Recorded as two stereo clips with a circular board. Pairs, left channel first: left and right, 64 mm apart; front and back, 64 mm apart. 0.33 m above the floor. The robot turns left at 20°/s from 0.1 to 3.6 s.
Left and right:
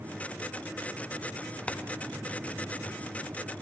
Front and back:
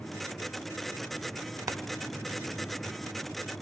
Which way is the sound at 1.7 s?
160° left.